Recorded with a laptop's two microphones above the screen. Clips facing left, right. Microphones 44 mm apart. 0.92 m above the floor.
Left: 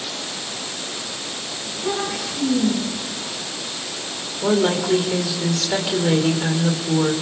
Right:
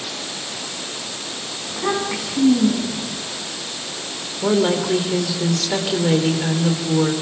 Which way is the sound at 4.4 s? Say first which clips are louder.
Right 1 dB; centre (ahead or behind).